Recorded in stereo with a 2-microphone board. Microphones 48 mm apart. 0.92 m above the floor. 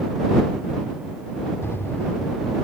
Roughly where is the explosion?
Left.